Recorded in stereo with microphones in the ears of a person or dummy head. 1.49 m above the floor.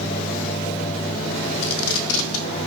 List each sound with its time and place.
1.6 s tape being pulled: 75° left (ahead or behind), 0.5 m